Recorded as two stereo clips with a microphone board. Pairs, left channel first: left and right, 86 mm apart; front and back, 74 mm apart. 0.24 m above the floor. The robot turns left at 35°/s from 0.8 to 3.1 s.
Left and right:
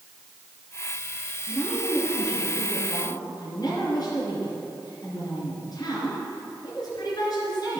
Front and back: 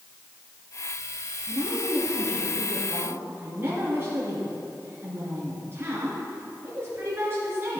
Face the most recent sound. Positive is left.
turn(degrees=125)